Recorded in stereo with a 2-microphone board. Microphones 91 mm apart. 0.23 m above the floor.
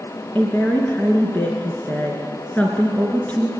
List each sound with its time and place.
0.3 s a woman speaking: 15° left (ahead or behind), 2.5 m